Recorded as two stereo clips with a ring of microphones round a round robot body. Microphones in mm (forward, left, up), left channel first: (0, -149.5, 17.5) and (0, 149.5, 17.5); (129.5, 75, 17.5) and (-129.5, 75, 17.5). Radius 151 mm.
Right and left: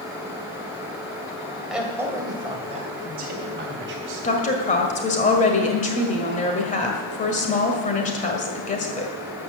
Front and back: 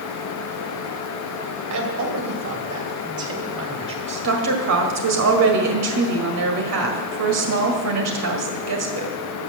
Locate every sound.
1.7 s a man speaking: straight behind, 2.5 m; by 4.3 s 135° left, 3 m
4.2 s a woman speaking: 155° right, 1.8 m